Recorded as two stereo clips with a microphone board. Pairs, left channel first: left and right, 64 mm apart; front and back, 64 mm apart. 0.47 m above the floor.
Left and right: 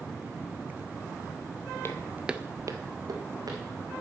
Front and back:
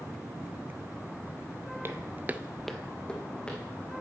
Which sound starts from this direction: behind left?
Footsteps, at 1.8 s.